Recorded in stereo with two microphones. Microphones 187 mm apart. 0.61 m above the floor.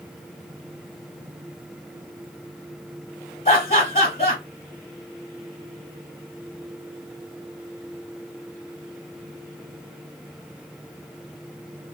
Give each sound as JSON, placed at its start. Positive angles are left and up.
{"t": 3.5, "sound": "laughter", "side_deg": 40, "distance_m": 1.2}